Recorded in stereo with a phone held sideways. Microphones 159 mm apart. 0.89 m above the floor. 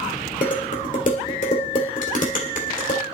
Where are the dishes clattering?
55° left (ahead or behind), 1.9 m.